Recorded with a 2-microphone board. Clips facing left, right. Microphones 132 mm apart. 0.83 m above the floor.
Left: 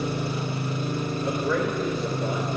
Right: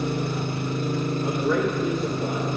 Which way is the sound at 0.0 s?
55° right (ahead or behind).